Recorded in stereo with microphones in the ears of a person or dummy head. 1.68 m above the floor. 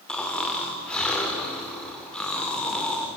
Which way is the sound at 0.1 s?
10° left (ahead or behind).